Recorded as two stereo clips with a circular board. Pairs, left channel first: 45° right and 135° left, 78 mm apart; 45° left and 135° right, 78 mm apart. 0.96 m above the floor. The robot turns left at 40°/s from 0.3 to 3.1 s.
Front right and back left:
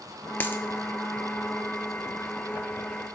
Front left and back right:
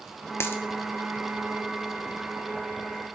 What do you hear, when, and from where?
0.4 s a dropped coin: 10° left, 0.6 m; by 0.6 s straight ahead, 0.6 m